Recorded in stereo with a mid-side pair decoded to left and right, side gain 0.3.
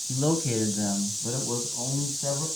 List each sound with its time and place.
0.1 s a man speaking: 20° left, 1.5 m; by 2.5 s 55° left, 2.5 m